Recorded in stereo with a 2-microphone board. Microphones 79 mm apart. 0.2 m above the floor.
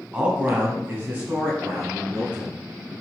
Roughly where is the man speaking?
Centre.